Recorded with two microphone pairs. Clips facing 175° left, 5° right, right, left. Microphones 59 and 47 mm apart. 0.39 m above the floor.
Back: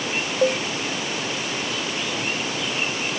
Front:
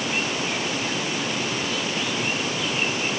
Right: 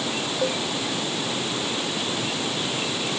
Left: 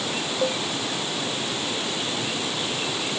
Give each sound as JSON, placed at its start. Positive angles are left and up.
{"t": 0.4, "sound": "a cowbell", "azimuth_deg": 175}